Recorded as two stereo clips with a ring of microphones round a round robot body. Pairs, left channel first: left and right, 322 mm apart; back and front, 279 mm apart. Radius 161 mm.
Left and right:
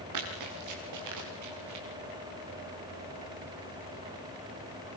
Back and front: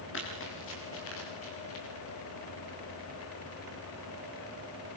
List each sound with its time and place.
0.1 s running footsteps: 125° right, 8.5 m; by 1.9 s 130° right, 8 m